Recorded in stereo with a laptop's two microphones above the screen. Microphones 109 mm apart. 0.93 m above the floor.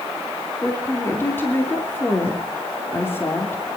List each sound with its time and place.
0.6 s a woman speaking: 20° left (ahead or behind), 3 m